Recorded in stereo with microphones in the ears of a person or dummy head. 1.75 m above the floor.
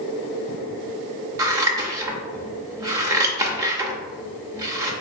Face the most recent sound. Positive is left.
turn(degrees=-20)  # may be behind; listen again after turning